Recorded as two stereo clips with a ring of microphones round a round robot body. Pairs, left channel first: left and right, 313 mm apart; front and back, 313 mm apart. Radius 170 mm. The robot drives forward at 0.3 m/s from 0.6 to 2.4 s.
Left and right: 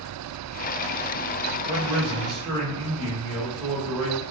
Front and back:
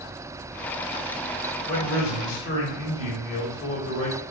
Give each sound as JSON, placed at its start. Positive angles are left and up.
{"t": 1.6, "sound": "a man speaking", "azimuth_deg": -15, "distance_m": 1.9}